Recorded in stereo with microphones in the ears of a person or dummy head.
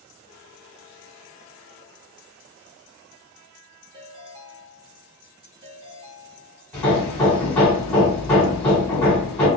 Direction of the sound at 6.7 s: 10° left (ahead or behind).